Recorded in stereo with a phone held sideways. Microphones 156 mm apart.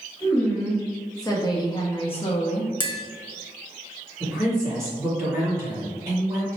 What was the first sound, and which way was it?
A woman speaking, 15° left (ahead or behind).